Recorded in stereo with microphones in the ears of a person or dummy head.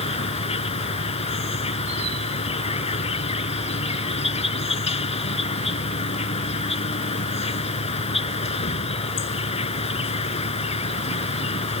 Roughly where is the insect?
Left.